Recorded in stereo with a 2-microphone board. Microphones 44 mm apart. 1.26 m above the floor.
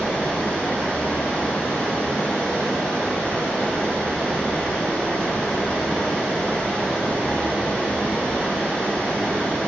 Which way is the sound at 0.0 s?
30° left (ahead or behind).